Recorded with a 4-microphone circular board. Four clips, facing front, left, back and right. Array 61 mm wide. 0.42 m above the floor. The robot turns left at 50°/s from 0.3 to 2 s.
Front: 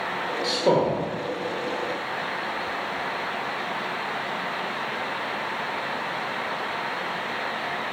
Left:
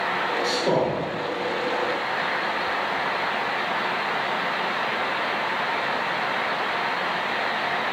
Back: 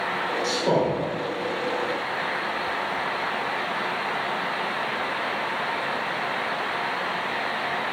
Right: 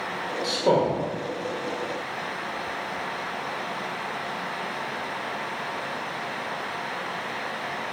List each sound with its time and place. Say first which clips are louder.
0.4 s a man speaking: right 3 dB, front 2 dB; 20° right, 1.5 m; by 1.0 s 50° right, 1.5 m